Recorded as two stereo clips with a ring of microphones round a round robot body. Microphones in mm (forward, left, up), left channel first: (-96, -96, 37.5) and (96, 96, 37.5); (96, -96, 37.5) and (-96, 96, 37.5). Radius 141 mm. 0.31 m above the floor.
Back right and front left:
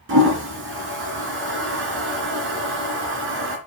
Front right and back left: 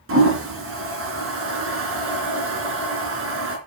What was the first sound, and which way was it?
A toilet flushing, 90° left.